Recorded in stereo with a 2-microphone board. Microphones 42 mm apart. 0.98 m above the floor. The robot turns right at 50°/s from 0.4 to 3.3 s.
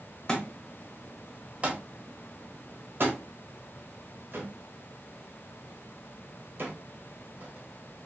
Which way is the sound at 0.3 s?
15° left (ahead or behind).